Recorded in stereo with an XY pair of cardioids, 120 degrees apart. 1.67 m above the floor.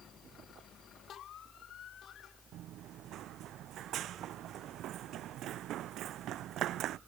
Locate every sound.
0.0 s a fan: 5° left
2.5 s running footsteps: 70° right